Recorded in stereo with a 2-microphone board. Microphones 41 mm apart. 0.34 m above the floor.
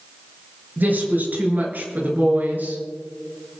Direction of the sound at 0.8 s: 55° right (ahead or behind).